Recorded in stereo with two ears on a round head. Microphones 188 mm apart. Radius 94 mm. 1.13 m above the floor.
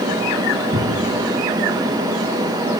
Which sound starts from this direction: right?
A thud, at 0.7 s.